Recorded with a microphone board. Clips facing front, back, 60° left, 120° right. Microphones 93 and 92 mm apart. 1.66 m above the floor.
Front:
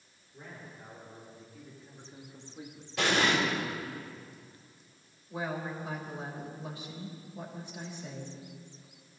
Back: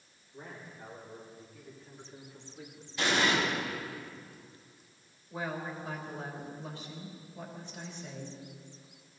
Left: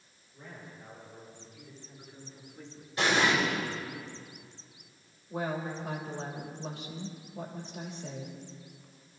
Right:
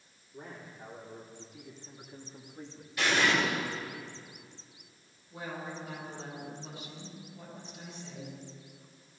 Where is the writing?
No writing in this recording.